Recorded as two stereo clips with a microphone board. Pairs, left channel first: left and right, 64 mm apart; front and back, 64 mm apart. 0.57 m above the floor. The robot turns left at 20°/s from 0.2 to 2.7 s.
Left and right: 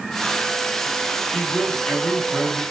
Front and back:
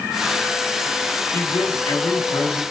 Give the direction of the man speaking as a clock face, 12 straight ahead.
11 o'clock.